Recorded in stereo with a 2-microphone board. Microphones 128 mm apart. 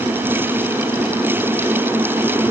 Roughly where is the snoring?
I don't hear snoring.